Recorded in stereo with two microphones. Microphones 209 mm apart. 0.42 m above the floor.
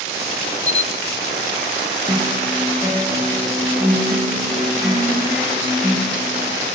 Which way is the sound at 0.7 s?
35° left (ahead or behind).